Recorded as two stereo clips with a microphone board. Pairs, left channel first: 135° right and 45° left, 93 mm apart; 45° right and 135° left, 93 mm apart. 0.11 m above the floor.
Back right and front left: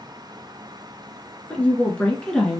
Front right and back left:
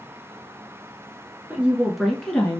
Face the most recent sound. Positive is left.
turn(degrees=-75)